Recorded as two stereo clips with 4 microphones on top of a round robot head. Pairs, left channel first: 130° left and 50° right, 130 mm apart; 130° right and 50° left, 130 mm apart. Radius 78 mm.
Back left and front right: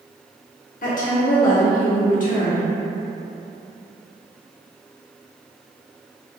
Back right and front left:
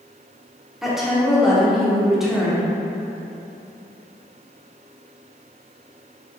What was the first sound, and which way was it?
A woman speaking, 140° left.